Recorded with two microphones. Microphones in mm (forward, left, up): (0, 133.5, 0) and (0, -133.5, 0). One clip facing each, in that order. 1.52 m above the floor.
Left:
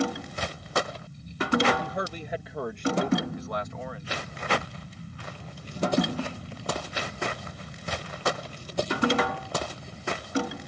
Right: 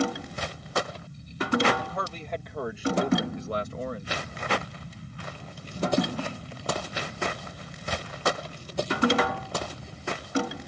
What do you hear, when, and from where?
1.8 s a man speaking: 25° left (ahead or behind); by 4.1 s 50° right (ahead or behind)